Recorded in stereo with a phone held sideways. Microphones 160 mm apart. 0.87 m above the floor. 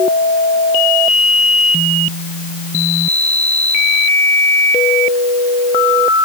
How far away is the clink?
I don't hear a clink.